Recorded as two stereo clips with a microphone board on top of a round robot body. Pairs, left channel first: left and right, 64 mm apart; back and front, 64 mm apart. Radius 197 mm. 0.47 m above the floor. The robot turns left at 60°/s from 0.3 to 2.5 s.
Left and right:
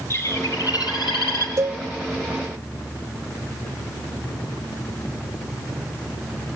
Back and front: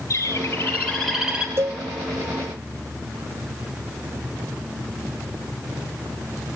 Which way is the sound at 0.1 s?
140° left.